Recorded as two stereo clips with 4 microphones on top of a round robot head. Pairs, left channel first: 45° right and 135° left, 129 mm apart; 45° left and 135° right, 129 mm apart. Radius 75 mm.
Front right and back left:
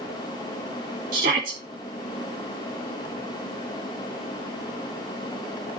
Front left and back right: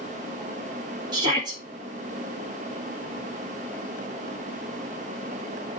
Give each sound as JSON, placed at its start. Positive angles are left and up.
{"t": 1.1, "sound": "a shout", "azimuth_deg": 165, "distance_m": 2.0}